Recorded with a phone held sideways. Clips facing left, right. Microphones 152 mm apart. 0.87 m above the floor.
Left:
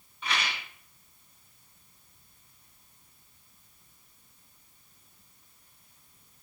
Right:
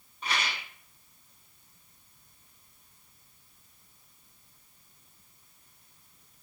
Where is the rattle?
40° right (ahead or behind), 2 m.